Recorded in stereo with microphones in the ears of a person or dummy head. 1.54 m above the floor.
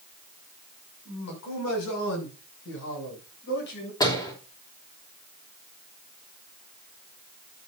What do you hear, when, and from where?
1.1 s a man speaking: 85° left, 6.5 m; by 3.9 s 60° left (ahead or behind), 8 m
4.0 s a door slam: 20° left (ahead or behind), 3 m